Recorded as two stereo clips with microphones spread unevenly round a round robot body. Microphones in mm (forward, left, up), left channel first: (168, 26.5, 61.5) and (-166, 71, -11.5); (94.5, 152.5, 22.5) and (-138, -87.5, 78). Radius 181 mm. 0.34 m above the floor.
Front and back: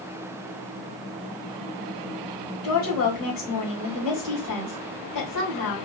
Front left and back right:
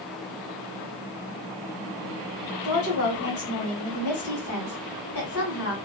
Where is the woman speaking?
20° left, 2 m.